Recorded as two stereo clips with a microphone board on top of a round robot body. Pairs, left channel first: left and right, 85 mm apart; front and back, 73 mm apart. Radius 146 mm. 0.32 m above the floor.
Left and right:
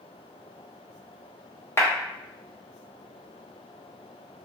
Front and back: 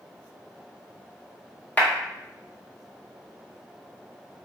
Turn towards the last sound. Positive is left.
turn(degrees=55)